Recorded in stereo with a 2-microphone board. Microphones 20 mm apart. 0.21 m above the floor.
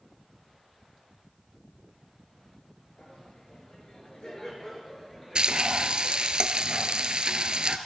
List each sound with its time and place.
3.0 s laughter: 55° left (ahead or behind), 5 m; by 6.3 s 10° right (ahead or behind), 5 m
5.3 s frying: 45° right (ahead or behind), 0.8 m